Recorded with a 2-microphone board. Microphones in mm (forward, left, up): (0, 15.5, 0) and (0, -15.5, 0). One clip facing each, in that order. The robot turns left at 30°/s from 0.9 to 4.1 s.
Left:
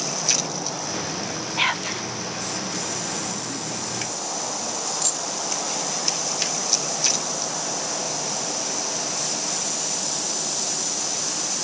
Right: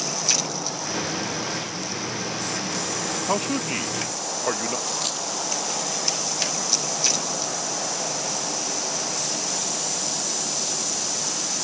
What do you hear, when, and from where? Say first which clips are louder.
1.6 s whispering: left 7 dB; 75° left (ahead or behind); by 2.1 s 80° left
3.3 s a man speaking: right 6 dB; 80° right; by 4.8 s 75° right (ahead or behind)
4.9 s a dropped coin: even; 25° right (ahead or behind)